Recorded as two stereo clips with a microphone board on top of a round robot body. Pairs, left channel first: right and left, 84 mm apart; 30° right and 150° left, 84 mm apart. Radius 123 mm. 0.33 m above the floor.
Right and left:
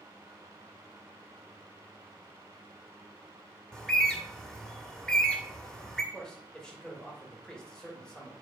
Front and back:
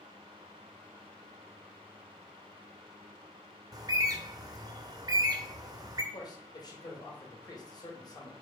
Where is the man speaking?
10° right, 2.5 m.